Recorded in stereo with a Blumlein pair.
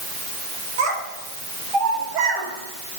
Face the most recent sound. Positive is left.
turn(degrees=-25)